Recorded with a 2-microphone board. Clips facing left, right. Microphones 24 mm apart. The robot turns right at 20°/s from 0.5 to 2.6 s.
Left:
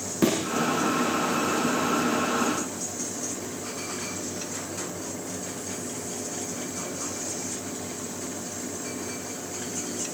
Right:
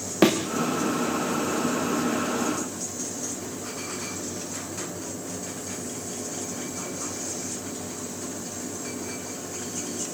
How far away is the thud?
About 6 m.